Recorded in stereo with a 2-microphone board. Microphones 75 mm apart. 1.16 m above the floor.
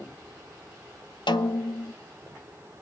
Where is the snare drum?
75° left (ahead or behind), 0.5 m.